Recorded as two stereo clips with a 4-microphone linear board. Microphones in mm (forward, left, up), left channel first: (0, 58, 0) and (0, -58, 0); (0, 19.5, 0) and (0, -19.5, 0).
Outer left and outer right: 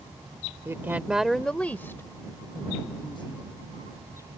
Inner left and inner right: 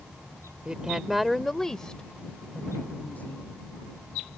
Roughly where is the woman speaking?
Right.